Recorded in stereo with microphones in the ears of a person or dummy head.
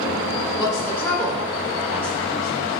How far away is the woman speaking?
About 2 m.